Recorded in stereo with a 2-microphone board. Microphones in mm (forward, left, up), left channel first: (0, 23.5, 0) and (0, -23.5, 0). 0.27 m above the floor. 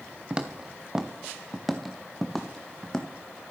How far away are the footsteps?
About 2.0 m.